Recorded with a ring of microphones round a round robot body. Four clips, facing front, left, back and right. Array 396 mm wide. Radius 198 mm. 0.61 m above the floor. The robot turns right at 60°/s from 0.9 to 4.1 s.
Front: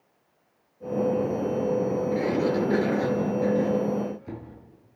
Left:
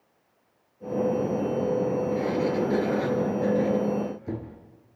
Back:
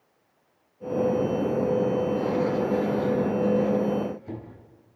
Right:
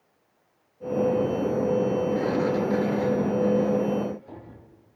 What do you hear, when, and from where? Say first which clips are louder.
2.1 s a sliding door: right 1 dB, even; 40° right, 4 m; by 4.6 s 80° left, 4 m